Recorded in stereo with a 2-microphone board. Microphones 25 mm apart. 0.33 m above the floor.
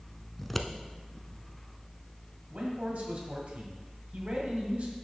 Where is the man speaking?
60° right (ahead or behind), 1.7 m.